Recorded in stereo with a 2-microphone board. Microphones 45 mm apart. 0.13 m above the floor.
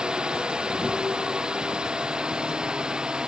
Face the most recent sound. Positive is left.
turn(degrees=-20)  # may be behind; listen again after turning